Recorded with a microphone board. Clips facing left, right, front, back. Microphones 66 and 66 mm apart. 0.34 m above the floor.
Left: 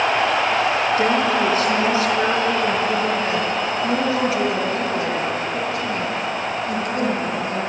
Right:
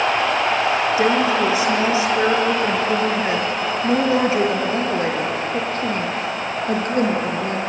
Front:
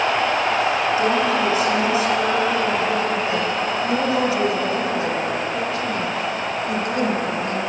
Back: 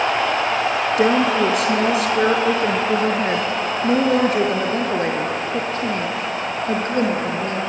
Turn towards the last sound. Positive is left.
turn(degrees=-125)